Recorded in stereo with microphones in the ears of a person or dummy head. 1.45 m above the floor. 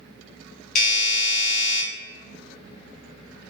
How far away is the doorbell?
About 0.8 m.